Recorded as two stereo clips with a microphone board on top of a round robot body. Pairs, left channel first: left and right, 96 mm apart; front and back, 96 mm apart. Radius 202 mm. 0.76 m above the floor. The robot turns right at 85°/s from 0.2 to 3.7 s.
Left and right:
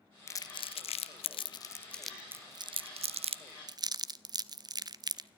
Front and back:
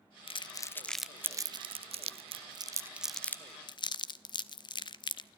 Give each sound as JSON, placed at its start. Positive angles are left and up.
{"t": 0.3, "sound": "crumpling", "azimuth_deg": 25, "distance_m": 0.6}